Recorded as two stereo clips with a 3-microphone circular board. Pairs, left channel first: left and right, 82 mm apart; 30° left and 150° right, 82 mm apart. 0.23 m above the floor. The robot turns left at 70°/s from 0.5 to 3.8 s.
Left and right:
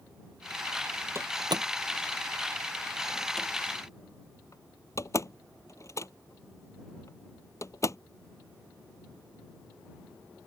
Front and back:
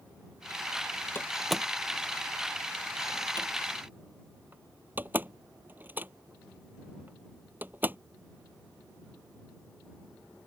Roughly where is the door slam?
Ahead right.